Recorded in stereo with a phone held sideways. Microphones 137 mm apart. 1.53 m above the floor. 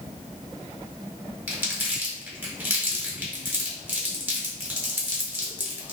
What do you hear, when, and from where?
1.5 s crumpling: 15° right (ahead or behind), 1.2 m